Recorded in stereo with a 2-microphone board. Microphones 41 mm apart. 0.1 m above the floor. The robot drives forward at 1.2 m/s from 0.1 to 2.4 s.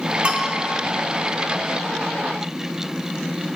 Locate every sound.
0.2 s a bell: 30° right (ahead or behind), 1.2 m; by 0.5 s 40° right (ahead or behind), 1.0 m